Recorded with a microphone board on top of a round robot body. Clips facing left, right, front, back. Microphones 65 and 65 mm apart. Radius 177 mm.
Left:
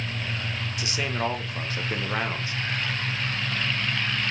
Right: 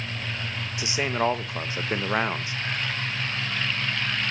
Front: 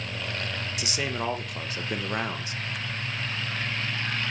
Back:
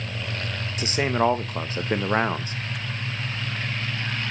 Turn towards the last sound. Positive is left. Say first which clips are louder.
# right 4 dB, back 10 dB
turn(degrees=-150)